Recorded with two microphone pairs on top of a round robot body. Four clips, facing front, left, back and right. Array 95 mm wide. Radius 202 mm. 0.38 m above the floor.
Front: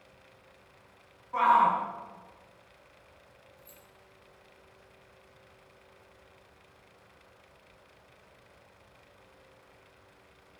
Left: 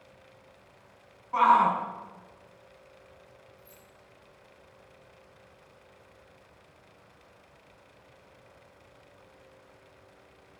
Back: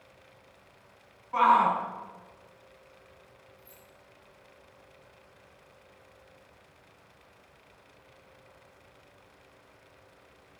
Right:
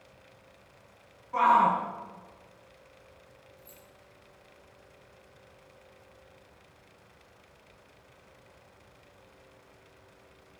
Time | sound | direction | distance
1.3 | a shout | 90° left | 6 m
3.6 | keys jangling | 15° left | 8 m